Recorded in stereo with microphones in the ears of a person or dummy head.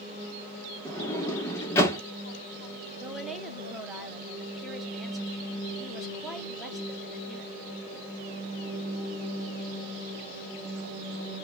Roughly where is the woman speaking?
Centre.